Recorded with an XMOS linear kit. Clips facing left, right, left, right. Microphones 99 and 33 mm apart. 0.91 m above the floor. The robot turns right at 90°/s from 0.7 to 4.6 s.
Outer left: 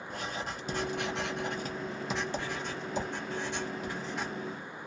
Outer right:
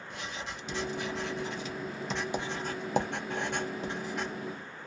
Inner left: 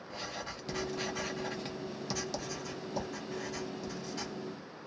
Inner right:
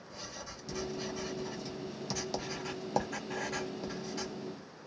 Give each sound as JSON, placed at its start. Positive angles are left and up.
{"t": 0.1, "sound": "writing", "side_deg": 45, "distance_m": 0.7}